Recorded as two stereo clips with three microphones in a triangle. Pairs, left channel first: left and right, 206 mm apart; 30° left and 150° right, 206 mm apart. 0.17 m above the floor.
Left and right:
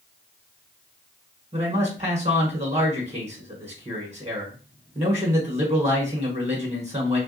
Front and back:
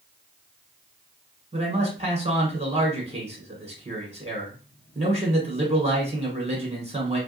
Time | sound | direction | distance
1.5 | a man speaking | 120° right | 1.4 m